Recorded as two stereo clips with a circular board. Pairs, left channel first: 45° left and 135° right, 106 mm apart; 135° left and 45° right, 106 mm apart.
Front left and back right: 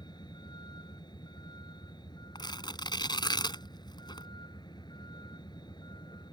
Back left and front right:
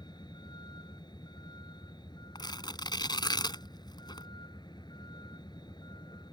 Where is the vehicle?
90° left.